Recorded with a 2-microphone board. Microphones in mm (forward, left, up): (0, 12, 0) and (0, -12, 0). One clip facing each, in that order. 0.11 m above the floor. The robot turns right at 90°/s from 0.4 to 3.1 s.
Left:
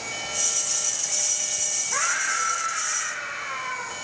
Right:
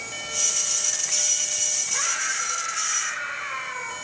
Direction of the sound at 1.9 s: 65° left.